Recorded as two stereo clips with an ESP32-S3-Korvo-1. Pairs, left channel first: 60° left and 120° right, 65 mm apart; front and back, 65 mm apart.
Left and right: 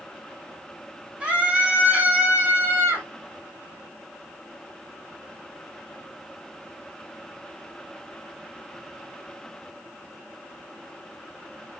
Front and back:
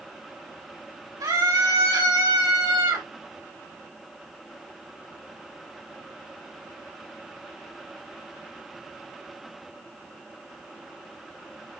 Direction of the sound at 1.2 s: 165° left.